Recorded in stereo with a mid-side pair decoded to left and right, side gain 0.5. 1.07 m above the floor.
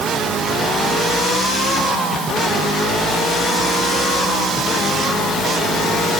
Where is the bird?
No bird in this recording.